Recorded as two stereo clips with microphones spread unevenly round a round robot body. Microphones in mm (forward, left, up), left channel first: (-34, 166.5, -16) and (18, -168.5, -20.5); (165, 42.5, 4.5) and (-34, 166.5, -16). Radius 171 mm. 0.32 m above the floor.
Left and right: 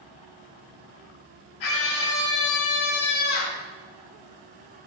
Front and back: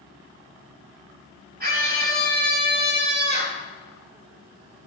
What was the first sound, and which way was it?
A scream, 100° left.